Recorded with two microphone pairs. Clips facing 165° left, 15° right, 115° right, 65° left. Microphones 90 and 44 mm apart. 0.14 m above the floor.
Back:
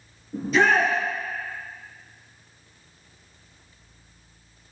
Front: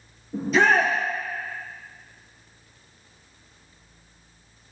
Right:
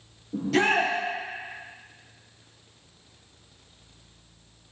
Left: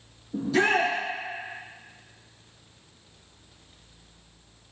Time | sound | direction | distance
0.3 | a shout | 105° right | 3 m